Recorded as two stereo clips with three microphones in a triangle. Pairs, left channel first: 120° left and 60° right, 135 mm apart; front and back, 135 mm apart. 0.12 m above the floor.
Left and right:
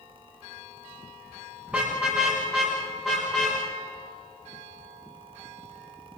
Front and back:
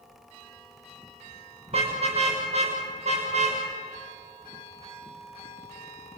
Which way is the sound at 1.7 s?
140° right.